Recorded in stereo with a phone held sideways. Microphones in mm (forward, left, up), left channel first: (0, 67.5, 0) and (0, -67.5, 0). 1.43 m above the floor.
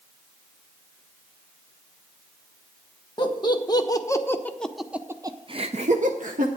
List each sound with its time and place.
3.2 s laughter: 35° left (ahead or behind), 1.4 m; by 6.5 s 80° right, 0.9 m